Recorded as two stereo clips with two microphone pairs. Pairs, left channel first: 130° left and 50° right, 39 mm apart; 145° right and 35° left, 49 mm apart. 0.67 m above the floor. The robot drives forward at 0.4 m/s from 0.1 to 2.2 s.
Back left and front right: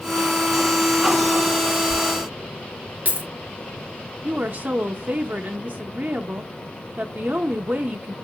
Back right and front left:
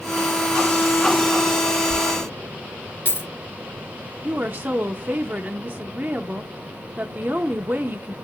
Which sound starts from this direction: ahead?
A woman speaking, at 4.2 s.